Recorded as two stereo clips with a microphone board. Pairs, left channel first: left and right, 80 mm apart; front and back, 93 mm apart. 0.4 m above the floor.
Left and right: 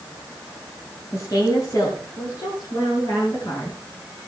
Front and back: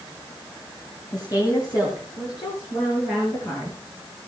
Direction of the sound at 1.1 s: 40° left.